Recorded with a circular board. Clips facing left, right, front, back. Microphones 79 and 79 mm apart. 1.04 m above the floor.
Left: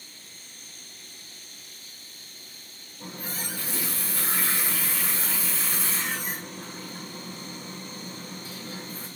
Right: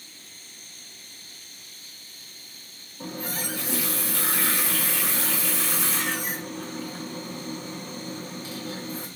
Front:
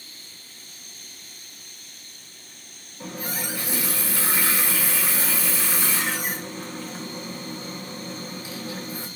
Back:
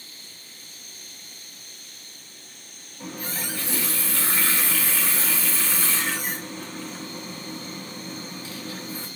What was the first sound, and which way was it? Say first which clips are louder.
A running tap: right 4 dB, front 1 dB; 75° right.